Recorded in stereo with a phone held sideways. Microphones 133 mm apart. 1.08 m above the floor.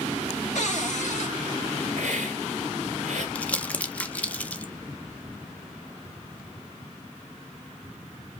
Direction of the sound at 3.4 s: 10° left (ahead or behind).